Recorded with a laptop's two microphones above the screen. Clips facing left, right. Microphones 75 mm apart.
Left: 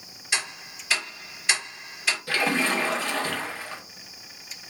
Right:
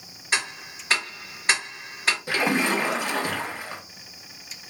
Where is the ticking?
45° right (ahead or behind), 1.8 m.